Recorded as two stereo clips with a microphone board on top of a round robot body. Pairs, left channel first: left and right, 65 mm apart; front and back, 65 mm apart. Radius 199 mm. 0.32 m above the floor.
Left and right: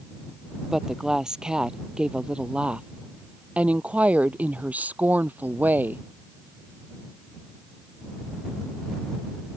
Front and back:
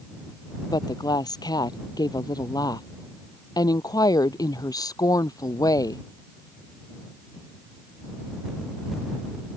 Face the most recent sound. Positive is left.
turn(degrees=-25)